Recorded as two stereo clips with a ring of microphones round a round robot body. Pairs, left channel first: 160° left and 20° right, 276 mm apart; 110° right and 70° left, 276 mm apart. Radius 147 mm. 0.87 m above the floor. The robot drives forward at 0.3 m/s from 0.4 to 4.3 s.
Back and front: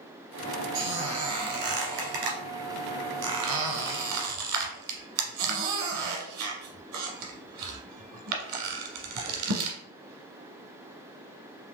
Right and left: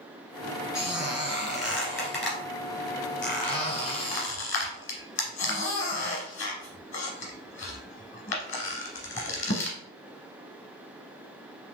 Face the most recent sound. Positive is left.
turn(degrees=-55)